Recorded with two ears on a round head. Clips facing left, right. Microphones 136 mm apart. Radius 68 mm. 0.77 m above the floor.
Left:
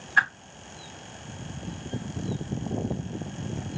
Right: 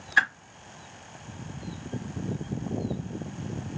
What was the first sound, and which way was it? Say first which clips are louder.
A whoosh: left 1 dB; 25° right (ahead or behind).